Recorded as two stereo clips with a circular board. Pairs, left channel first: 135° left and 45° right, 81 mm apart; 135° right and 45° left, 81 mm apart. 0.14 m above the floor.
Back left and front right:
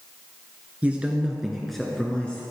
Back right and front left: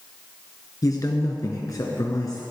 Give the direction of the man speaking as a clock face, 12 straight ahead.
4 o'clock.